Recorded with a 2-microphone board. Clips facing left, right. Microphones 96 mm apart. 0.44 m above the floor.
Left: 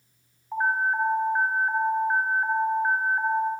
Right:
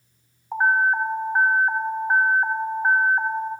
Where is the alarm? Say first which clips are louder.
Right 5 dB; 30° right (ahead or behind), 0.8 m.